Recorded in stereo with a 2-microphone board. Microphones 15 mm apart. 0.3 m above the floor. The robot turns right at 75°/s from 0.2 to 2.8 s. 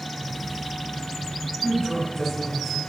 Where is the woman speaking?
60° right, 1.8 m; by 2.8 s 30° left, 1.8 m.